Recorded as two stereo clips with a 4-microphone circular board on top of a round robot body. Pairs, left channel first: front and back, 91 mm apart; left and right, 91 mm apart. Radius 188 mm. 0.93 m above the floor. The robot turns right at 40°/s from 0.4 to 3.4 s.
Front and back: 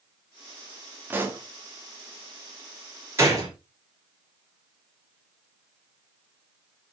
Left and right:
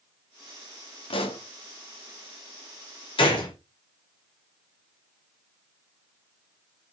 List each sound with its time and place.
1.1 s a pop: 110° left, 1.5 m; by 1.4 s 125° left, 1.5 m
3.2 s a gunshot: 120° left, 2 m; by 3.5 s 125° left, 2 m